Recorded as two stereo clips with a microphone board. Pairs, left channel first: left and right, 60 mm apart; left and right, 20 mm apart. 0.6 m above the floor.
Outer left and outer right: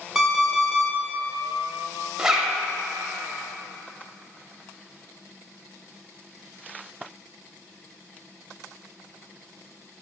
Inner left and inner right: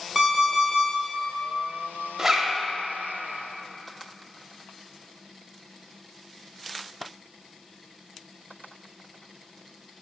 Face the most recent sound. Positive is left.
turn(degrees=-10)  # may be behind; listen again after turning